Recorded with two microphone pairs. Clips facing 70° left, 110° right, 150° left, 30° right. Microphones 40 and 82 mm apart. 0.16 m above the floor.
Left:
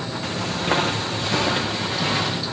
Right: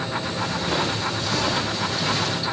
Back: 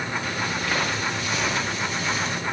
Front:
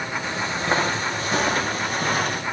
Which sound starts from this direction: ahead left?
Footsteps, at 0.2 s.